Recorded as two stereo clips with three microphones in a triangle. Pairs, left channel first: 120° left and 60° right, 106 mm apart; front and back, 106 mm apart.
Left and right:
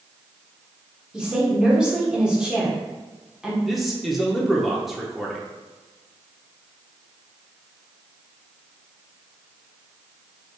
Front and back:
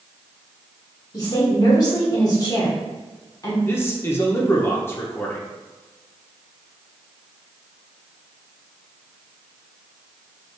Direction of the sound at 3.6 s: 25° left.